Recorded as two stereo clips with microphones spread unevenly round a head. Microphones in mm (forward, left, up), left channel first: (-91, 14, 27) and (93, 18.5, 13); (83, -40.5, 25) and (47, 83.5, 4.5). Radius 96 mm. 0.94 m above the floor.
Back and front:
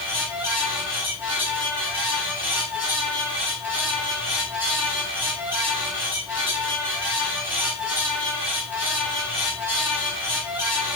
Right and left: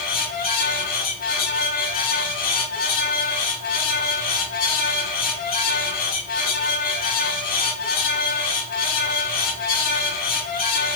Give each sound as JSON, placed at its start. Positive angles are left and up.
{"t": 0.0, "sound": "a fan", "azimuth_deg": -80, "distance_m": 3.0}